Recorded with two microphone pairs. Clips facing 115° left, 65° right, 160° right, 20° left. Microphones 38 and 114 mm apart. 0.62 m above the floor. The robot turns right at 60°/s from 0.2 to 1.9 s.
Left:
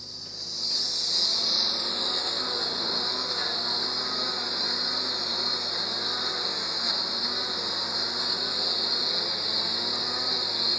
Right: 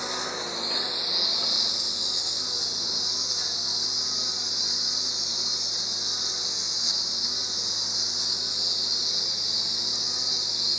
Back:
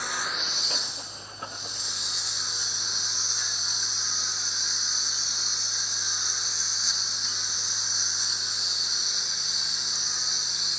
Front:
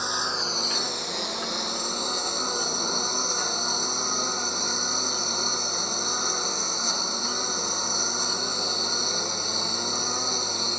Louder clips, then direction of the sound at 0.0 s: Right 11 dB, front 4 dB; 45° right.